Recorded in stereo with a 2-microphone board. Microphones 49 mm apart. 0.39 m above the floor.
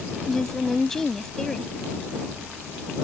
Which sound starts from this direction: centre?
A woman speaking, at 0.3 s.